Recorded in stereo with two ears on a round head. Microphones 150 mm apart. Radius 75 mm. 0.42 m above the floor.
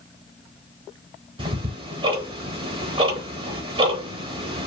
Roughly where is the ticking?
Right.